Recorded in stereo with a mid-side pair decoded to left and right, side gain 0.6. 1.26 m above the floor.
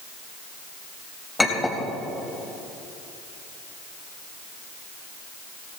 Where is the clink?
15° left, 4.5 m.